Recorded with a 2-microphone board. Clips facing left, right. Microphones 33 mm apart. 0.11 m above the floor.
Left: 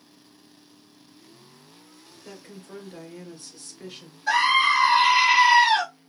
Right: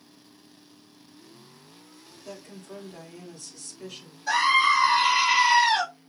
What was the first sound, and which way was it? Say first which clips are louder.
A woman speaking: right 1 dB; 30° left (ahead or behind).